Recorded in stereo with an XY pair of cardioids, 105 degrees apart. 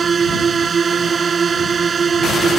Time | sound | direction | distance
0.0 | a drone | 35° right | ?